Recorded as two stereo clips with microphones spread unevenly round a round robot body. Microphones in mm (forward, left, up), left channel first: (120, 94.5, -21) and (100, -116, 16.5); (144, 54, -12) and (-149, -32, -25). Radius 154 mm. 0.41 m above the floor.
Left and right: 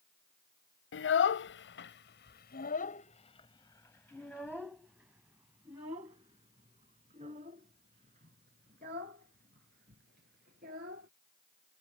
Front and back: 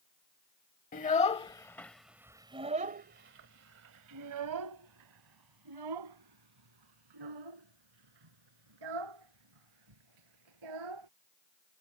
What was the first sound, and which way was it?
A child speaking, 80° left.